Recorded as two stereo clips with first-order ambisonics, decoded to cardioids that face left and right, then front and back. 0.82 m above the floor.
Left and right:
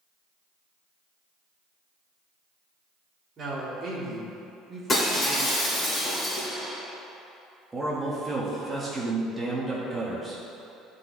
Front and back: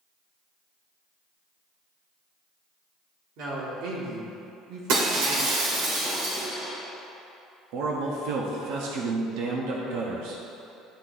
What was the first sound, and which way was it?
A man speaking, 155° right.